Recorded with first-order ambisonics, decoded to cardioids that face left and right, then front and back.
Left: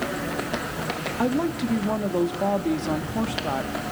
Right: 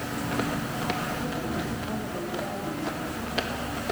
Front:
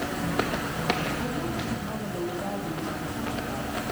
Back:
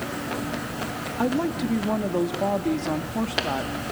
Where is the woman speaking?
135° left, 2 m.